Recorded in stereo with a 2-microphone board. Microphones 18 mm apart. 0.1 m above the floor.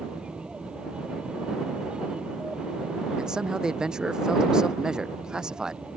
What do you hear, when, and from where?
0.0 s an aircraft: 60° right (ahead or behind)
3.2 s a man speaking: 40° right (ahead or behind)